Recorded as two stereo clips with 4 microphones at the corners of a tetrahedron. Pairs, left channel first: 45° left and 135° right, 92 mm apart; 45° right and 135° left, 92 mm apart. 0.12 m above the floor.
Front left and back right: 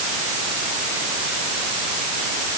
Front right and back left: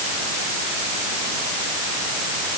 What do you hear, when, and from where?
Only background noise.